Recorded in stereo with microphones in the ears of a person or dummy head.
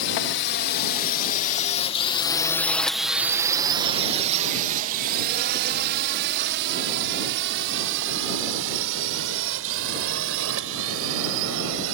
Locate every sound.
0.0 s a drone: 60° left (ahead or behind); by 11.9 s 80° right